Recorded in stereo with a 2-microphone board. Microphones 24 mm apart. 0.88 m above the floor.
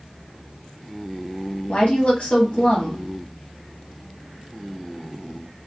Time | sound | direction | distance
1.7 | a woman speaking | 55° left (ahead or behind) | 1.2 m